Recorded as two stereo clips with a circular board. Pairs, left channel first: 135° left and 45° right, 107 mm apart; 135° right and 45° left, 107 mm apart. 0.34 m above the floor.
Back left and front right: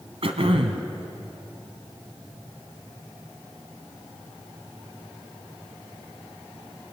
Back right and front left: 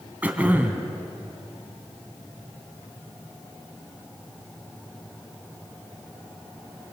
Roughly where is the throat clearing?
Ahead right.